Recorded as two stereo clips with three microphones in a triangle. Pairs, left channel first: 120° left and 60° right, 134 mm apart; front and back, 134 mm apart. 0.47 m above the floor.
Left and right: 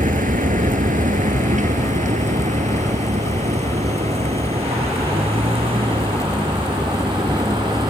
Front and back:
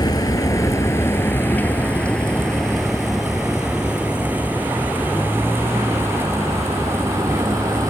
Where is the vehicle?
60° right; by 7.9 s 115° right.